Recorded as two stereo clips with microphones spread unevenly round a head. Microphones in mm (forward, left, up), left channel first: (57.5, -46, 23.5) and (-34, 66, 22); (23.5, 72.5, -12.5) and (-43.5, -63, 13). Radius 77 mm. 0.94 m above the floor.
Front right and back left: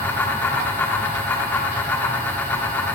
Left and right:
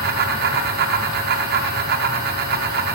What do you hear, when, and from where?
0.0 s a fan: 130° right, 0.8 m